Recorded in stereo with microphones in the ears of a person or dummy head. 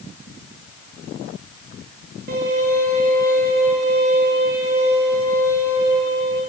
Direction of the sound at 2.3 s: 50° right (ahead or behind).